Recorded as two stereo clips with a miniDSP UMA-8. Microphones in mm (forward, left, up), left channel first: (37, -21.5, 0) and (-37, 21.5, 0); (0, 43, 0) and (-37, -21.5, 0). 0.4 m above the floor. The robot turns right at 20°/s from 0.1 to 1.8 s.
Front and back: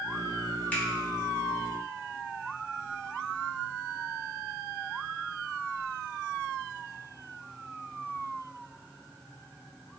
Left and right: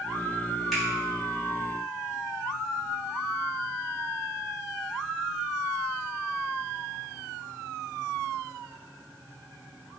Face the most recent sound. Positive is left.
turn(degrees=-10)